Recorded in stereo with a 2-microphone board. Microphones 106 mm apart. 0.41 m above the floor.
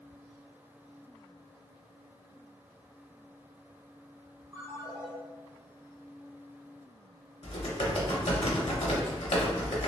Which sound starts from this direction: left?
Typing on a keyboard, at 7.4 s.